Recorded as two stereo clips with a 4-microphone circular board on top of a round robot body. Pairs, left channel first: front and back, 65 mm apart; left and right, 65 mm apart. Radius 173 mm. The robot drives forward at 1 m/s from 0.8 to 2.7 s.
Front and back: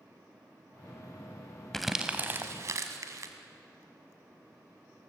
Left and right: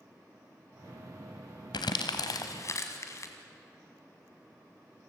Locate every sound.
1.7 s crumpling: 85° left, 1.0 m; by 3.3 s 135° left, 1.3 m